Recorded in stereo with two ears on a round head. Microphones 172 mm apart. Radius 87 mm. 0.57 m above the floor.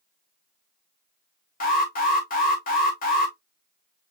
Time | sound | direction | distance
1.6 | an alarm | 45° left (ahead or behind) | 1.4 m